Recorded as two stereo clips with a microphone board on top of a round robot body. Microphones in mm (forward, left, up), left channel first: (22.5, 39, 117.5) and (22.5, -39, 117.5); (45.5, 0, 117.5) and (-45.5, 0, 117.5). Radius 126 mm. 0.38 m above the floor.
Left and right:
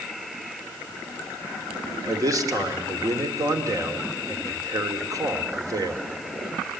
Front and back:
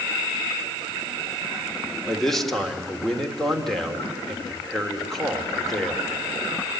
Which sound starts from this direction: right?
A man speaking, at 2.1 s.